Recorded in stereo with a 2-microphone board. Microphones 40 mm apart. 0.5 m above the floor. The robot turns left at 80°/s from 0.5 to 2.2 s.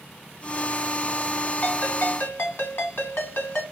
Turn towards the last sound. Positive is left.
turn(degrees=95)